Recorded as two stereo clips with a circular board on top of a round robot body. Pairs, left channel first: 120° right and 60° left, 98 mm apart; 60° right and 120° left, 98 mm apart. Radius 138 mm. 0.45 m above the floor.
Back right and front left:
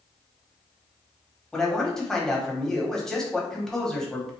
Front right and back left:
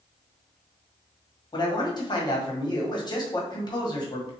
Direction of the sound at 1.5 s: 35° right.